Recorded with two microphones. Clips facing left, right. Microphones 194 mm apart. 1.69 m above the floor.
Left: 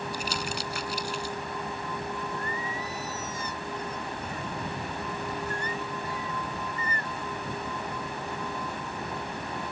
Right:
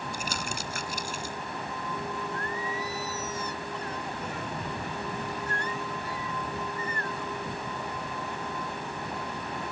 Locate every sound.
0.1 s crumpling: 45° right (ahead or behind)
2.3 s singing: 80° right